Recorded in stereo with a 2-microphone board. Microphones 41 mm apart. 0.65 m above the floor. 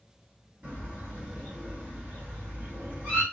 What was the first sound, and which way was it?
A bird, 55° right (ahead or behind).